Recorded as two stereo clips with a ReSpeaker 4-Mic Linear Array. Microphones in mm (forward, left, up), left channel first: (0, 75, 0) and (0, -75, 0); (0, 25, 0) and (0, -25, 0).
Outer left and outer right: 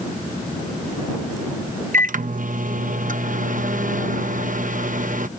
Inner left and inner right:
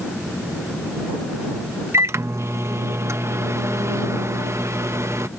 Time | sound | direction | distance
1.9 | a microwave | 60° right (ahead or behind) | ?